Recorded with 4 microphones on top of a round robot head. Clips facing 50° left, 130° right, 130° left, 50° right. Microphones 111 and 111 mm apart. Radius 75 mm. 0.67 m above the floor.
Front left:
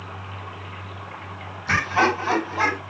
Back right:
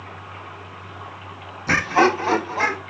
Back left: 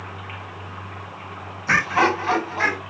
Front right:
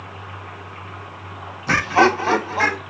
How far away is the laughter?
About 0.6 m.